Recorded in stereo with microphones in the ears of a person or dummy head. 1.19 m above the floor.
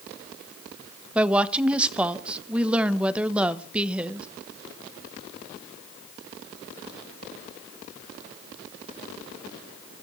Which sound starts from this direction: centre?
A woman speaking, at 1.1 s.